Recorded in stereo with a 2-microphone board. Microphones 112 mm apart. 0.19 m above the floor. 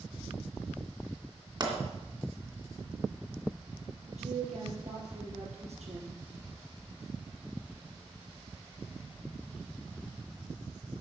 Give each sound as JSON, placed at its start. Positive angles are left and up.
{"t": 1.6, "sound": "a pop", "side_deg": -40, "distance_m": 2.5}
{"t": 4.1, "sound": "a woman speaking", "side_deg": -75, "distance_m": 4.5}